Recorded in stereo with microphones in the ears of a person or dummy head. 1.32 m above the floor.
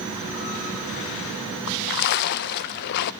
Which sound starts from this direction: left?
A splash, at 1.7 s.